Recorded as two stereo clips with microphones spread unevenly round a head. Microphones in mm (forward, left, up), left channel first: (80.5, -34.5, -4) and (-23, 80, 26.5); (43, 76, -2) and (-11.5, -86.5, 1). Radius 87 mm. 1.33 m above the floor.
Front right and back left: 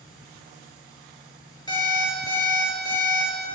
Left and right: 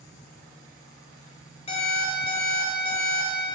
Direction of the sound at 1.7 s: 15° left.